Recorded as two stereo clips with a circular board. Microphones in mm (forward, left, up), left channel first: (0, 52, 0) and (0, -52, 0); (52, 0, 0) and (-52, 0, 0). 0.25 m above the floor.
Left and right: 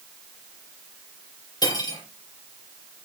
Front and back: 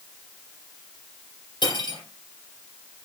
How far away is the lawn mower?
I don't hear a lawn mower.